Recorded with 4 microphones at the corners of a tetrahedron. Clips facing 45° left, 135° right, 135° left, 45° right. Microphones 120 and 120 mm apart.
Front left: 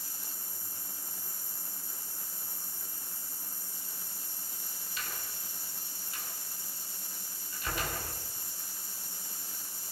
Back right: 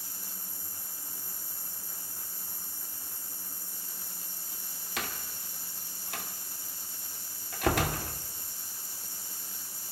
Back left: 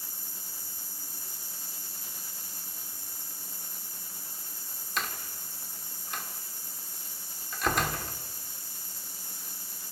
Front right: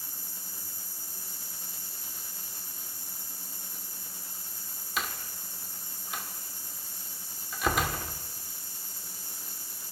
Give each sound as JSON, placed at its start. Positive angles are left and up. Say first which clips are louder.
{"t": 5.0, "sound": "a door slam", "louder": "back right 5 dB, even", "azimuth_deg": -130, "distance_m": 2.0}